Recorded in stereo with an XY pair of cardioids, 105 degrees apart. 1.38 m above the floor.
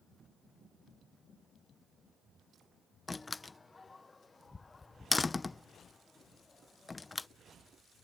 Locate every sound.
3.1 s a door slam: 20° left